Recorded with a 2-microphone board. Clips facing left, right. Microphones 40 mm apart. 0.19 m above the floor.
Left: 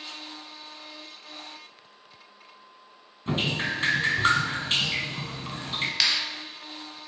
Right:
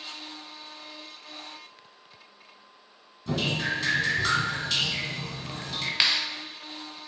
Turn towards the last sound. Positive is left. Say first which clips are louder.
# right 2 dB
turn(degrees=-25)  # may be behind; listen again after turning